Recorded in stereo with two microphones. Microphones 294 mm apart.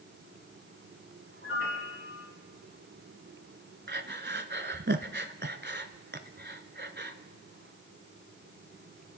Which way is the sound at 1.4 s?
40° left (ahead or behind).